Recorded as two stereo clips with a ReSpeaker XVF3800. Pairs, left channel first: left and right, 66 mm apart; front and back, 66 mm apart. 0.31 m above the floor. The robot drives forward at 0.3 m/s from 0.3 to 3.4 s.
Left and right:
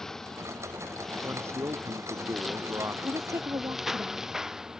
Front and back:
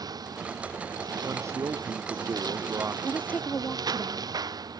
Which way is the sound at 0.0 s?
170° left.